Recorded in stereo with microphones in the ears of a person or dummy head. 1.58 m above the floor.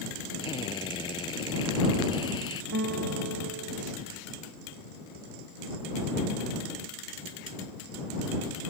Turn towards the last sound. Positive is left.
turn(degrees=-70)  # may be behind; listen again after turning